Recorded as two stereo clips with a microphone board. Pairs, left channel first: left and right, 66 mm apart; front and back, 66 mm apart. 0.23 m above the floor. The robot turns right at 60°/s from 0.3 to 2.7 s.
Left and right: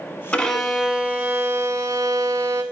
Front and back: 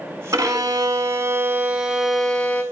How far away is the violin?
About 0.7 m.